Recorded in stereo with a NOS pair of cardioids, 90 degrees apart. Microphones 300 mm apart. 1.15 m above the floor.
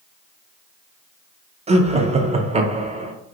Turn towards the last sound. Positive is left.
turn(degrees=-20)